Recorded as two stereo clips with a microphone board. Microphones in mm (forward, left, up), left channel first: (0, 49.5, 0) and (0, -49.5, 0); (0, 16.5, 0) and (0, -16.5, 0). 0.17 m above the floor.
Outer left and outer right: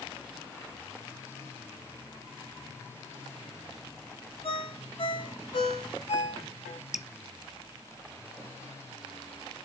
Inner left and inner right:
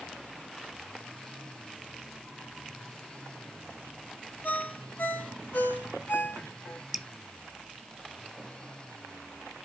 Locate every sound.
4.4 s a ringtone: 75° left (ahead or behind), 3.5 m
6.9 s dripping: 5° right (ahead or behind), 0.9 m